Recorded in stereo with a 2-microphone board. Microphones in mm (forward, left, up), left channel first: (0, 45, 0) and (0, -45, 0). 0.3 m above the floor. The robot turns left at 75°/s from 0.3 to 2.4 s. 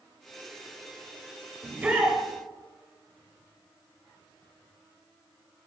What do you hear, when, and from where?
1.6 s a shout: 25° right (ahead or behind), 1.0 m; by 2.2 s 5° right (ahead or behind), 1.0 m